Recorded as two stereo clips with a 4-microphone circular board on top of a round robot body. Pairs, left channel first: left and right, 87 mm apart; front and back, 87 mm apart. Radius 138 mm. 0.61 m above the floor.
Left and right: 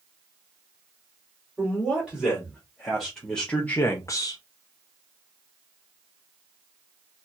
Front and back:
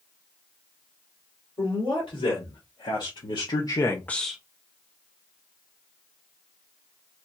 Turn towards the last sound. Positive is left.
turn(degrees=100)